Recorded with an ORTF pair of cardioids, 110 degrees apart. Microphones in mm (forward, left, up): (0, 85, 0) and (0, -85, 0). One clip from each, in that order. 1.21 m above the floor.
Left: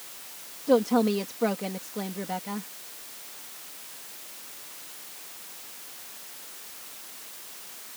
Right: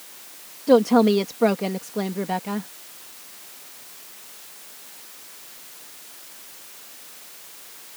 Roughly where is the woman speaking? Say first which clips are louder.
Right 6 dB; ahead right.